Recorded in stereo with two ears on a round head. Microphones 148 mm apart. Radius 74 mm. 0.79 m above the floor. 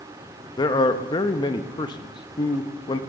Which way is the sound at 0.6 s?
25° left (ahead or behind).